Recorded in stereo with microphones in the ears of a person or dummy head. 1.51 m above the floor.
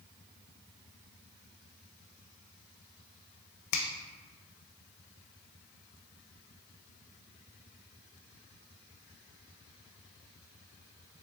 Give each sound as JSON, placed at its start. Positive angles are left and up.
{"t": 3.7, "sound": "a finger snap", "side_deg": 60, "distance_m": 0.6}